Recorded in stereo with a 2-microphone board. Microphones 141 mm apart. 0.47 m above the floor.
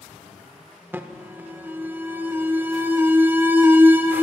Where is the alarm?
15° right (ahead or behind), 0.6 m.